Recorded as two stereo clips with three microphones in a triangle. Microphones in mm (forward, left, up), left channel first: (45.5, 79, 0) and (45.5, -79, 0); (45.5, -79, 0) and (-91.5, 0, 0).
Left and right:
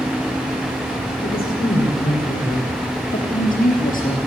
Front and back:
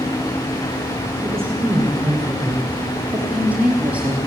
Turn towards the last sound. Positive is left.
turn(degrees=70)